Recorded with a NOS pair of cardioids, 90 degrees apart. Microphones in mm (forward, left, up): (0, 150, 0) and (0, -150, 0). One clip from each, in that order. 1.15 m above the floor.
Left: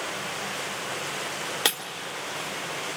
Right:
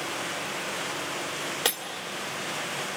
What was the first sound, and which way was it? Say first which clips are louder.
Breaking glass: left 3 dB; 25° left.